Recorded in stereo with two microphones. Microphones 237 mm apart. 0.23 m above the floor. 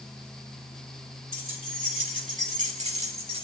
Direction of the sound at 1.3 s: 35° right (ahead or behind).